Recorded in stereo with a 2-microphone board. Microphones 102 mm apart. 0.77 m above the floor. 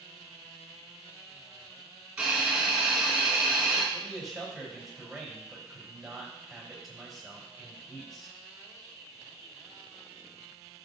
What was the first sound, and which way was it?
A hiss, 10° right (ahead or behind).